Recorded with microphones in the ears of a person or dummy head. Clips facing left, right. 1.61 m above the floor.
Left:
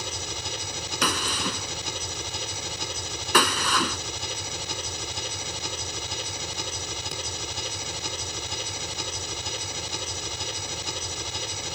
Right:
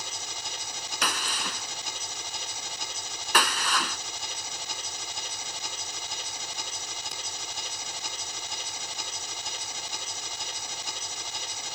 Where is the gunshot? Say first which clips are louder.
Left 5 dB; 70° left (ahead or behind).